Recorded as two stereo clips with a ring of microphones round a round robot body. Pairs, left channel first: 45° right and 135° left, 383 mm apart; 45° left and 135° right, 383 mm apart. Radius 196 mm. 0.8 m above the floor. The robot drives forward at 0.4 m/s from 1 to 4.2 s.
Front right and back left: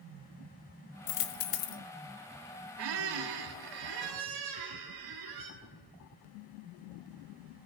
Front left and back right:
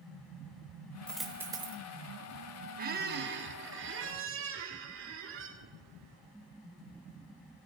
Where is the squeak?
155° left, 0.8 m; by 5.5 s 165° left, 1.3 m.